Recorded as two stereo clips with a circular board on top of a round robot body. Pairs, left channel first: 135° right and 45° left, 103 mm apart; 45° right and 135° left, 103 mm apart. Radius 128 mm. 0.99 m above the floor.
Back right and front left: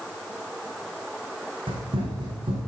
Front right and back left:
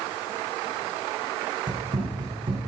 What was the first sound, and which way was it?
Running footsteps, 90° left.